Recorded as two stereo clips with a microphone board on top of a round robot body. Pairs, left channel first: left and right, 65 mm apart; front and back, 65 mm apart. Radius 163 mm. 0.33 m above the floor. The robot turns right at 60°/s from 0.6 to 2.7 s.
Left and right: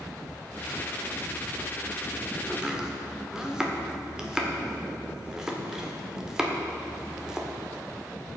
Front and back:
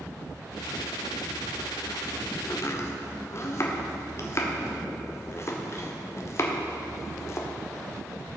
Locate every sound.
2.5 s chopping: 25° right, 1.9 m; by 7.5 s 15° right, 1.9 m